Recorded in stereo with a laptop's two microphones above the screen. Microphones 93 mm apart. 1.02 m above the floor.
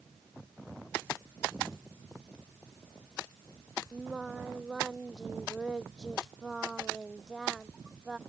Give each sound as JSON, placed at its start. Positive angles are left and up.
{"t": 3.9, "sound": "singing", "side_deg": -5}